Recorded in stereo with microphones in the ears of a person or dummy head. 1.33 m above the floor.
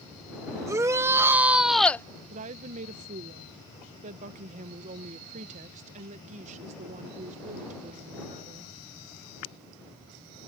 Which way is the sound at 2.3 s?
40° right (ahead or behind).